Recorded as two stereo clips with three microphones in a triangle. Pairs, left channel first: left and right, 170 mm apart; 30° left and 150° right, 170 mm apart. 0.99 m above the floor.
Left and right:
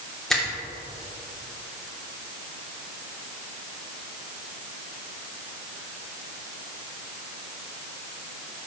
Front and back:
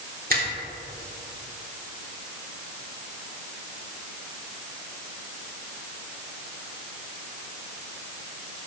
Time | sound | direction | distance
0.3 | a finger snap | straight behind | 2.5 m